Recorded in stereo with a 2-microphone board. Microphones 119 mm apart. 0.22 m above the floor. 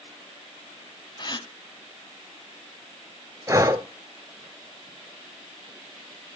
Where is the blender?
I don't hear a blender.